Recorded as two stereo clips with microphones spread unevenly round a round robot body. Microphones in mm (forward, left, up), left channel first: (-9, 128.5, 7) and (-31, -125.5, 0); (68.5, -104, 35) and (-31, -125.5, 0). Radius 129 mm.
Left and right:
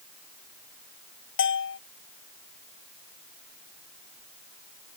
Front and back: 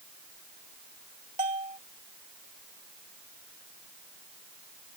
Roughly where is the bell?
Behind left.